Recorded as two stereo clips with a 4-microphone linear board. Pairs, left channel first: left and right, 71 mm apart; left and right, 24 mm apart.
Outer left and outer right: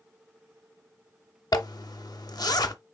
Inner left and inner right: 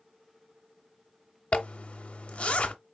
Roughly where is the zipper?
Left.